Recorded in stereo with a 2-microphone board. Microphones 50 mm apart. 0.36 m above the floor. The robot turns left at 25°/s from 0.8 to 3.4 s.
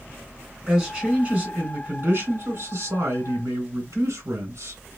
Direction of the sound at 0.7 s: 15° right.